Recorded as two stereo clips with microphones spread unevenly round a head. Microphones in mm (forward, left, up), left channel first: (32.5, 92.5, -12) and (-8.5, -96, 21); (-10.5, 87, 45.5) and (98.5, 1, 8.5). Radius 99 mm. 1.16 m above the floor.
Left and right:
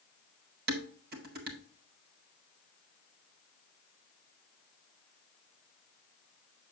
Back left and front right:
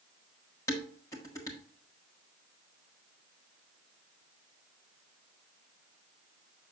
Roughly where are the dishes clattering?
Behind right.